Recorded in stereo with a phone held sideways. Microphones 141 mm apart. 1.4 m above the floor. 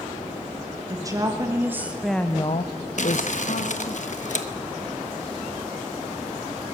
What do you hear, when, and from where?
0.9 s a woman speaking: 25° right (ahead or behind), 2.5 m; by 4.0 s 55° left (ahead or behind), 2.0 m
3.0 s crumpling: 60° left (ahead or behind), 1.2 m